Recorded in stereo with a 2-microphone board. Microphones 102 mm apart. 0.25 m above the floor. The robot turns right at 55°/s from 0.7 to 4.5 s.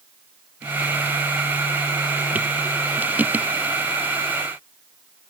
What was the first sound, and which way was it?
Only background noise.